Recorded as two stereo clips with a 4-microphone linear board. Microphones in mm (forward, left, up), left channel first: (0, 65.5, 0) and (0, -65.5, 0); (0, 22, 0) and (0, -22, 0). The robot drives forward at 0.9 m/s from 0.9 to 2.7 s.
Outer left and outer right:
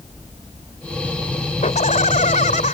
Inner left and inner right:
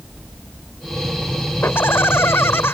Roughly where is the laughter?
Left.